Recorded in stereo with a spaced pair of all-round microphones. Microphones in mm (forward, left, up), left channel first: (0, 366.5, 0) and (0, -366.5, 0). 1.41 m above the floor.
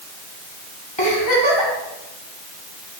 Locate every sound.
1.0 s a giggle: 35° left (ahead or behind), 2.5 m